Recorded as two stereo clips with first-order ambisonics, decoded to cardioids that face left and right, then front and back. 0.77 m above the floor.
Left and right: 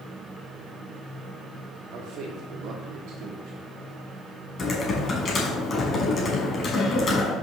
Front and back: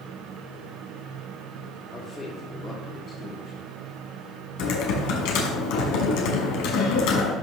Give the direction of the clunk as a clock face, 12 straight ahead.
I don't hear a clunk.